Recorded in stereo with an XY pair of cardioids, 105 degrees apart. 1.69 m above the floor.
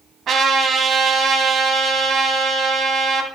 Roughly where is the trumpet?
Ahead right.